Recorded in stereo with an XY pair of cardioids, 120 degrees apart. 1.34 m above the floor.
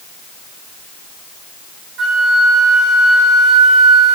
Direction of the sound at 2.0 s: 60° right.